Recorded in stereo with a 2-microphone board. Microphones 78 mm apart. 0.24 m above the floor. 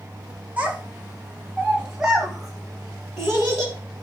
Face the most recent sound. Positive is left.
turn(degrees=0)  # may be behind; listen again after turning